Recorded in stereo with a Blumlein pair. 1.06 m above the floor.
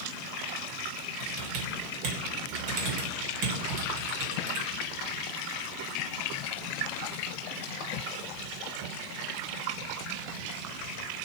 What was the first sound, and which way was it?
Typing on a keyboard, 45° right.